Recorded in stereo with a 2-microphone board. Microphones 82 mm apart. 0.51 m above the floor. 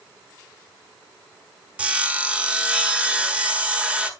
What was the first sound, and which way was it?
Sawing, 15° right (ahead or behind).